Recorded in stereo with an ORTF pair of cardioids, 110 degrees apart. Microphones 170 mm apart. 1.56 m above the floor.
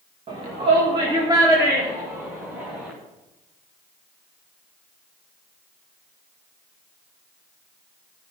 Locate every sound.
0.3 s a shout: 35° right, 2 m; by 2.9 s 5° right, 3 m